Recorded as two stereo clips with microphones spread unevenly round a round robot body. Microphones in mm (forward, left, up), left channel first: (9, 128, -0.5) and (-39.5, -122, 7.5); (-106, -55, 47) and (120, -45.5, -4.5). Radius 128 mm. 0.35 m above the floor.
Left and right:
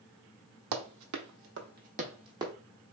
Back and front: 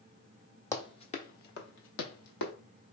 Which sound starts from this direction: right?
Running footsteps, at 0.7 s.